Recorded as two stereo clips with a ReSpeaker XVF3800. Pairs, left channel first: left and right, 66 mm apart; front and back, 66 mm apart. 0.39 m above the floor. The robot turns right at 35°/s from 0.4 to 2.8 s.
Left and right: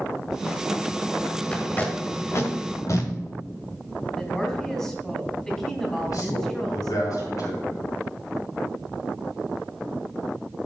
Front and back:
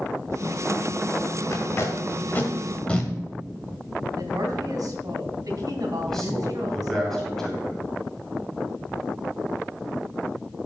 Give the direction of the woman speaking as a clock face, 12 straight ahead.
6 o'clock.